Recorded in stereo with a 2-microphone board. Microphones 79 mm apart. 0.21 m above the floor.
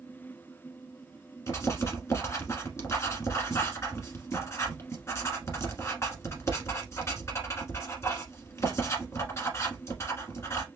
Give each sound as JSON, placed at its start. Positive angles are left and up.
{"t": 1.5, "sound": "writing", "side_deg": 40, "distance_m": 1.2}